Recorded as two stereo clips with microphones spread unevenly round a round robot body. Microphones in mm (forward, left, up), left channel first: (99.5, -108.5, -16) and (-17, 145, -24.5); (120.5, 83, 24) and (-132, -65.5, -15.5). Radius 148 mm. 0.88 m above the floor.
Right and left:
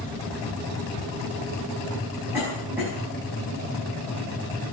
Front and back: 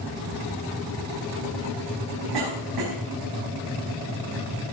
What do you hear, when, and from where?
2.3 s a cough: 160° right, 5.5 m